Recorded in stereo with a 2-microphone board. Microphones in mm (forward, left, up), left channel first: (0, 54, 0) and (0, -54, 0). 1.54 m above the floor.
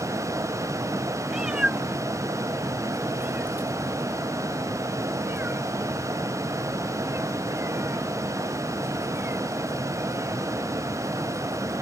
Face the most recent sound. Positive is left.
turn(degrees=-20)  # may be behind; listen again after turning